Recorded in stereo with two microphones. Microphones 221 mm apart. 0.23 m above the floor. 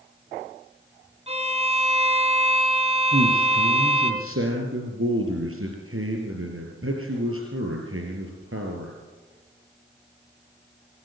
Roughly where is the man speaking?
Right.